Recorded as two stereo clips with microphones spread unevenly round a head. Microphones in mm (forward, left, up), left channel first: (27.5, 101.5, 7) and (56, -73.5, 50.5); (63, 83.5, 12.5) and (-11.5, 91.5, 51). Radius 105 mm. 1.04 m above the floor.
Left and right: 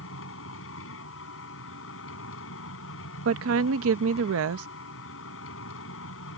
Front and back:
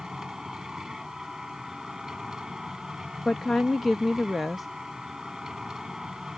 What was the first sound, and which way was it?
A machine running, 95° left.